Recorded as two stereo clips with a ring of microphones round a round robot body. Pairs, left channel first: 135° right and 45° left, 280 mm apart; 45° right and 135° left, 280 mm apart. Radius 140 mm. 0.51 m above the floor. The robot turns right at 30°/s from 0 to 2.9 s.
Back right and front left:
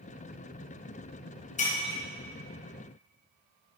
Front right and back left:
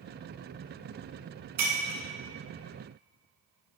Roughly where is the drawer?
No drawer in this recording.